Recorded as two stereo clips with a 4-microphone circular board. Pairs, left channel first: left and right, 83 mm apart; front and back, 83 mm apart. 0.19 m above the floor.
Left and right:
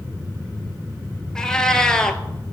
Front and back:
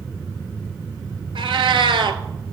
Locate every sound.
1.4 s a cat meowing: 170° left, 0.5 m